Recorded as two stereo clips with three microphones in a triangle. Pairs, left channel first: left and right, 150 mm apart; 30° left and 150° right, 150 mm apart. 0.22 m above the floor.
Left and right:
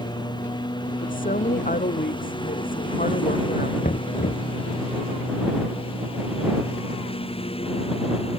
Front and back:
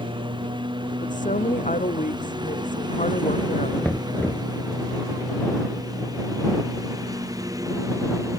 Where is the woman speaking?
65° left.